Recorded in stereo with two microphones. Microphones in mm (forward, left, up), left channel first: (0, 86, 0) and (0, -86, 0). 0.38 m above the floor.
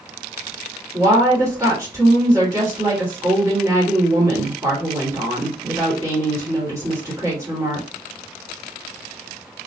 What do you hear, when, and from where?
0.9 s a woman speaking: 20° right (ahead or behind), 1.3 m